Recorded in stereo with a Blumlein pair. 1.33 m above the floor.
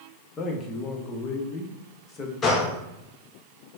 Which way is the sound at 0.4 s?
25° left.